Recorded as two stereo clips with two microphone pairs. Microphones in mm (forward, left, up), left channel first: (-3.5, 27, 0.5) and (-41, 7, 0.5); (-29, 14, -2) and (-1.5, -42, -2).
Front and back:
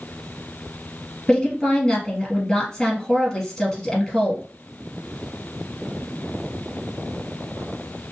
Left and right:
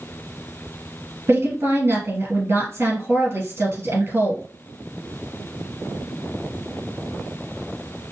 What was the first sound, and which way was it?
A woman speaking, 45° right.